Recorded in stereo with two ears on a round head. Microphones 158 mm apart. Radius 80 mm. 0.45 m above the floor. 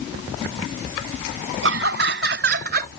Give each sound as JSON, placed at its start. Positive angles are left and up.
{"t": 1.6, "sound": "laughter", "side_deg": -70}